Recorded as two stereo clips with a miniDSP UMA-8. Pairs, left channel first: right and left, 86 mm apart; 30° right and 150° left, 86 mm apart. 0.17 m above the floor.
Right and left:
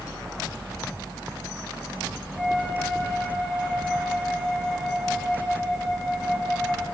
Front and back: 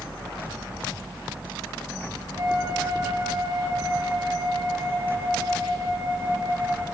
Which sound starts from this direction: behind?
A flute, at 2.4 s.